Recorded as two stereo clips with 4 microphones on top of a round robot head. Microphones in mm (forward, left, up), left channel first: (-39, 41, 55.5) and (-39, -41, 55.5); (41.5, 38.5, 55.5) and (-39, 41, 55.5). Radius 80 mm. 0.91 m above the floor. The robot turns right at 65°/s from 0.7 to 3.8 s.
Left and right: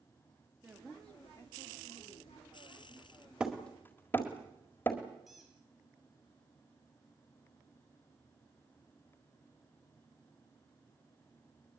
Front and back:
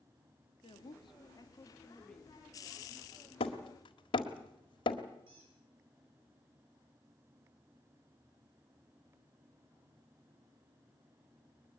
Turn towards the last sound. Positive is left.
turn(degrees=180)